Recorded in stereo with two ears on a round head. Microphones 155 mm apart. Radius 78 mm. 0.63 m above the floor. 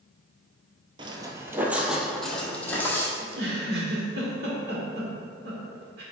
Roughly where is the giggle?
Right.